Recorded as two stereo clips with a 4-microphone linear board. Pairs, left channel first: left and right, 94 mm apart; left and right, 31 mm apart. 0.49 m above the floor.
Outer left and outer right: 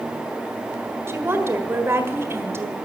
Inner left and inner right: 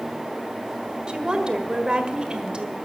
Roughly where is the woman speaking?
Right.